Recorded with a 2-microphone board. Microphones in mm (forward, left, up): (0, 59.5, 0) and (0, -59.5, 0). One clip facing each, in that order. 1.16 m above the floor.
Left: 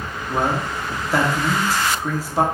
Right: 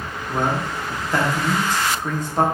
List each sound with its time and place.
0.3 s a man speaking: 5° left (ahead or behind), 1.1 m